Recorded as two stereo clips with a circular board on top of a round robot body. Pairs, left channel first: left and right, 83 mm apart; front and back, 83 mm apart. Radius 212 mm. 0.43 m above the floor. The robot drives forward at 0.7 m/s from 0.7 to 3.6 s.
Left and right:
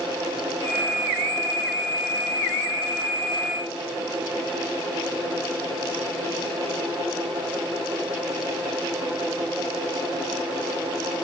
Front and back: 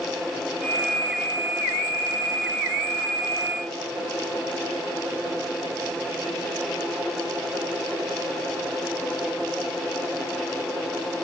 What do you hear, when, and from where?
Only background noise.